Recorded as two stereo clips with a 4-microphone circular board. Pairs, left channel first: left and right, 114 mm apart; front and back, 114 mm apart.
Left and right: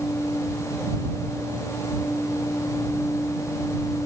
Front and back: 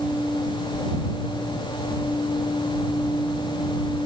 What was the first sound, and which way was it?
Only background noise.